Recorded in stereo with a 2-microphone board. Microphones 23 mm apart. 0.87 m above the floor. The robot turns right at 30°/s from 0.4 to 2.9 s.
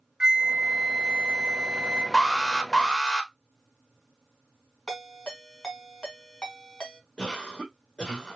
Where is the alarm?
15° left (ahead or behind), 1.0 m; by 3.3 s 25° left (ahead or behind), 1.0 m.